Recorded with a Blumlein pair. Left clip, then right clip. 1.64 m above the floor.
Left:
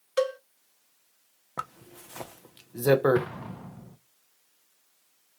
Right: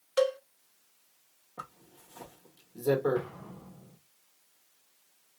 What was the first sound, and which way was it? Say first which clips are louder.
A cowbell: even; straight ahead.